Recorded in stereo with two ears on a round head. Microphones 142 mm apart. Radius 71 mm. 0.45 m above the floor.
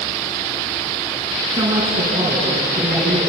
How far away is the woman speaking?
About 5.5 m.